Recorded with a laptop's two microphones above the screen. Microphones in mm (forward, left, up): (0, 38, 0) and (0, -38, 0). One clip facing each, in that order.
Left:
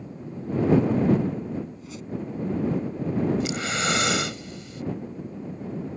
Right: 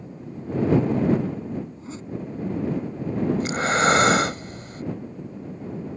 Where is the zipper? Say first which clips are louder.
Right 2 dB; 35° right (ahead or behind).